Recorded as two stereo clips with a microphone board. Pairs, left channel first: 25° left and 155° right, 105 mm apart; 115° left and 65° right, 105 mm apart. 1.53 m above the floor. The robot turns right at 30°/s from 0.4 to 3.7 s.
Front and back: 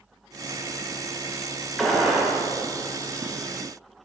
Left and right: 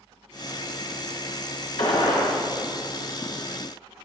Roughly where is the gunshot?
Left.